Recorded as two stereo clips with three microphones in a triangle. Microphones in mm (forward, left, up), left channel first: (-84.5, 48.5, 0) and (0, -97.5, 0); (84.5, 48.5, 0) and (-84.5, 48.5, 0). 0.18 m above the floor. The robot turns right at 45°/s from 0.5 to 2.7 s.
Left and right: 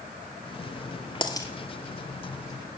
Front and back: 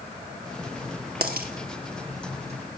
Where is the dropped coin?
Straight behind, 1.2 m; by 1.5 s 170° right, 1.2 m.